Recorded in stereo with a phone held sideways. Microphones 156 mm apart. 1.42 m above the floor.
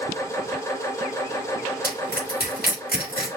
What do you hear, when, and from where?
0.0 s a machine running: 20° left (ahead or behind), 1.6 m
1.8 s crushing: 75° left (ahead or behind), 3.5 m